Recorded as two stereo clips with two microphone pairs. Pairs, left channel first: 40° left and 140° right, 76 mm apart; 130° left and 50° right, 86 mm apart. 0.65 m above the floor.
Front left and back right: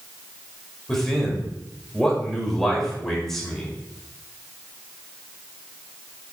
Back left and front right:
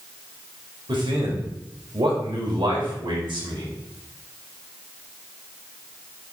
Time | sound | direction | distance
0.9 | a man speaking | 45° right | 3 m